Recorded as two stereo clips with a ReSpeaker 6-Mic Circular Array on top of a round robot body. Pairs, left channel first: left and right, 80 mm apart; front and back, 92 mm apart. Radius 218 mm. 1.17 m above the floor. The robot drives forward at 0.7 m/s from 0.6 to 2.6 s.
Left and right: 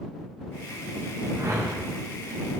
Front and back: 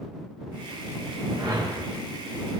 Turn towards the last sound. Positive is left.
turn(degrees=-155)